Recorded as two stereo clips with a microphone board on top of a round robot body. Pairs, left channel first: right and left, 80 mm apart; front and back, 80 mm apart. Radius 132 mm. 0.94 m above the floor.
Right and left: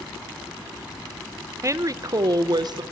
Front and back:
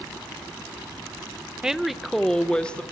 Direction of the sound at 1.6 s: 105° left.